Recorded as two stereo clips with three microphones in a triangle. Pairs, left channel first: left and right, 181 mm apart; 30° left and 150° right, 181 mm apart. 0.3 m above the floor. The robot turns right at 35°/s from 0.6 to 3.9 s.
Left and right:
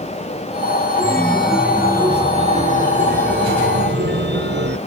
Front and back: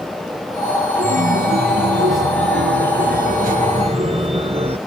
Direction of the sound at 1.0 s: 165° left.